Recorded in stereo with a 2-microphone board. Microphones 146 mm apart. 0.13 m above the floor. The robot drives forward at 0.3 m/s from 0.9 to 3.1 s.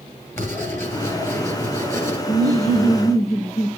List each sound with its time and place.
0.4 s writing: 15° left (ahead or behind), 2.5 m; by 2.2 s 20° left (ahead or behind), 2.5 m
2.3 s laughter: 50° left (ahead or behind), 2 m